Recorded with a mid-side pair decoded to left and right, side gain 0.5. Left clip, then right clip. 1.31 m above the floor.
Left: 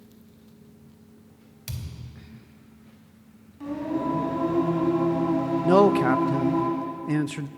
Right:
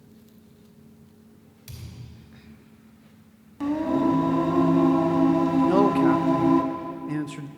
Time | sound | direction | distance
1.7 | a thud | 55° left | 2.5 m
3.6 | singing | 65° right | 3 m
5.6 | a man speaking | 35° left | 0.5 m